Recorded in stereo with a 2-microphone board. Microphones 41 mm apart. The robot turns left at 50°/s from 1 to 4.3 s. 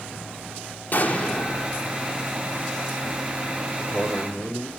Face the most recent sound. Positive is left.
turn(degrees=80)